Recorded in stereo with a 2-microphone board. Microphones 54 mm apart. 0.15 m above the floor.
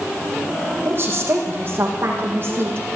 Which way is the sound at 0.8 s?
40° right (ahead or behind).